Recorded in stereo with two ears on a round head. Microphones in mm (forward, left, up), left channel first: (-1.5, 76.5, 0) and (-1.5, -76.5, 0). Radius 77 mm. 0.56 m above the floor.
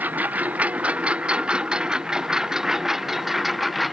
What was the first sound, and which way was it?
A lawn mower, 10° right (ahead or behind).